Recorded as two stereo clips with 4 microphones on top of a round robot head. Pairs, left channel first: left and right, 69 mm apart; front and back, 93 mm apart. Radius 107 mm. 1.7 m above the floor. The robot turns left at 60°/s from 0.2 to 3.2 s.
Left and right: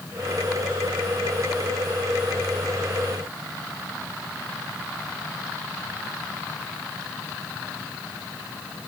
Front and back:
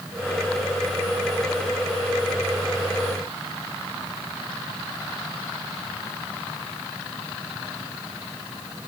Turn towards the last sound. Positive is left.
No sound to turn to.